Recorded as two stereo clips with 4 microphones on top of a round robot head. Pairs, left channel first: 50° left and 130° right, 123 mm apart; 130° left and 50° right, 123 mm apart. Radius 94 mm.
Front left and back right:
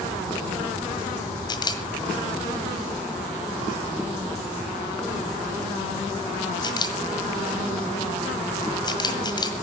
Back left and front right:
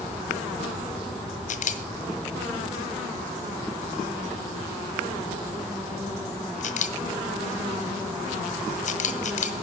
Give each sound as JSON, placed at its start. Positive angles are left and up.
{"t": 1.5, "sound": "a camera shutter", "azimuth_deg": 105, "distance_m": 1.7}